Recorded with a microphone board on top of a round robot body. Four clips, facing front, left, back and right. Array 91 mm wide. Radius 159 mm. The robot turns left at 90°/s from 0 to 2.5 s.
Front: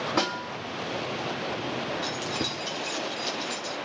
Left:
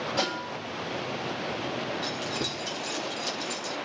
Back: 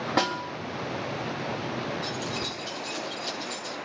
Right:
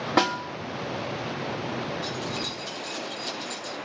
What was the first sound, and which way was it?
A snare drum, 115° right.